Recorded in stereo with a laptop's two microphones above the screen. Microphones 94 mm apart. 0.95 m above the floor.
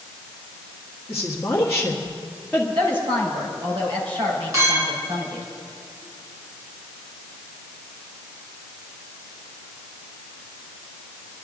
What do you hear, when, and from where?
1.1 s a woman speaking: centre (ahead or behind), 1.7 m
2.8 s a woman speaking: 60° right (ahead or behind), 4.5 m
4.5 s a clink: 30° right (ahead or behind), 5.5 m